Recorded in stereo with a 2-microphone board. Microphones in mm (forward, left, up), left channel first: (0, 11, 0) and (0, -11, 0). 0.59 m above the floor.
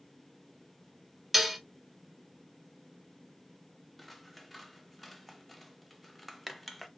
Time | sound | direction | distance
1.3 | dishes clattering | 5° right (ahead or behind) | 0.5 m
4.0 | scissors | 5° right (ahead or behind) | 0.5 m